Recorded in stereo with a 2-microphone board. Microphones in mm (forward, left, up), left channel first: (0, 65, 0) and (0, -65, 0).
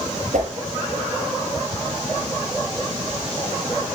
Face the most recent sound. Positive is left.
turn(degrees=-70)  # may be behind; listen again after turning